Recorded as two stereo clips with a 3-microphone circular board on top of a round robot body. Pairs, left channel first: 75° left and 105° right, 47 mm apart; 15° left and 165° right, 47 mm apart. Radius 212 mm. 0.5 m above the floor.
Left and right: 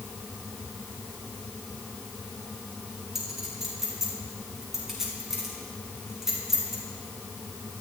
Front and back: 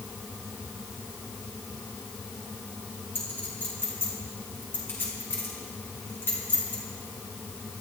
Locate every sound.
3.1 s a clink: 25° right, 6 m